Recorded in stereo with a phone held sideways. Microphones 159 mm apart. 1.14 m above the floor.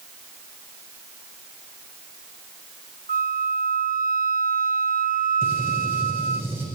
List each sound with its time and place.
3.1 s a flute: 60° right (ahead or behind), 1.1 m
5.4 s a gunshot: 15° right (ahead or behind), 8 m